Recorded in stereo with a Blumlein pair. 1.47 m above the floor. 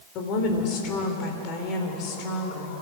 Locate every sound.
0.1 s a woman speaking: 40° left, 4 m